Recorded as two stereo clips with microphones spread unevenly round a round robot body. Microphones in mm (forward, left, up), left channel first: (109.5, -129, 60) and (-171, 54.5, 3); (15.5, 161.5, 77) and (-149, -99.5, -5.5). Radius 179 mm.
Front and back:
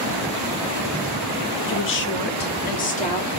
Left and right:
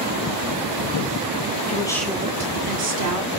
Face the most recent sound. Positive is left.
turn(degrees=-110)